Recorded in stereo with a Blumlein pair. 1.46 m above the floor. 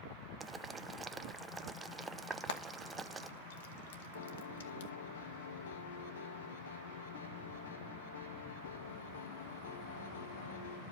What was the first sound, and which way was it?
Boiling, 15° right.